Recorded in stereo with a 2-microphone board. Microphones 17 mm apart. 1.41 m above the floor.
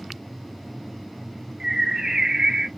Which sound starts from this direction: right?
A bird, at 1.6 s.